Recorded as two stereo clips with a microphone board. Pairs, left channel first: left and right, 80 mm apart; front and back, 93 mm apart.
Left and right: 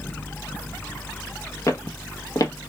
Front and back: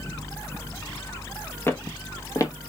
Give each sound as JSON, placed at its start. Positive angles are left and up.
{"t": 1.7, "sound": "footsteps", "azimuth_deg": 55, "distance_m": 0.9}